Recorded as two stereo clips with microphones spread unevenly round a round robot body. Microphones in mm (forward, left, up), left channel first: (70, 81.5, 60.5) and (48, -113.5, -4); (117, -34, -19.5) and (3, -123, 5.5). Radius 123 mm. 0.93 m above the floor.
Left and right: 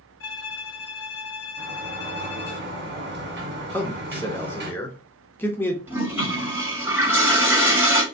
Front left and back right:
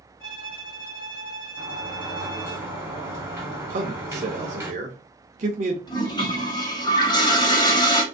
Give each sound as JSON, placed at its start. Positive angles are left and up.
{"t": 0.2, "sound": "a violin", "azimuth_deg": 65, "distance_m": 1.0}
{"t": 1.6, "sound": "a sliding door", "azimuth_deg": -70, "distance_m": 1.7}
{"t": 3.7, "sound": "a man speaking", "azimuth_deg": 180, "distance_m": 0.6}
{"t": 5.9, "sound": "a toilet flushing", "azimuth_deg": -20, "distance_m": 1.6}